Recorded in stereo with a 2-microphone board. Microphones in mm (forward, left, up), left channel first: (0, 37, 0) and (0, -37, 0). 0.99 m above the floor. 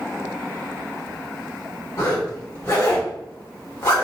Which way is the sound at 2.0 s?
30° left (ahead or behind).